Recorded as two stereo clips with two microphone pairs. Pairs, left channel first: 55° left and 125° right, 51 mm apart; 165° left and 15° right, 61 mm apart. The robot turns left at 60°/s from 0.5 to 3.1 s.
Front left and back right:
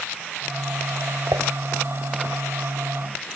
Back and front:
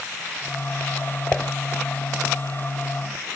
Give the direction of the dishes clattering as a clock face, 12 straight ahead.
4 o'clock.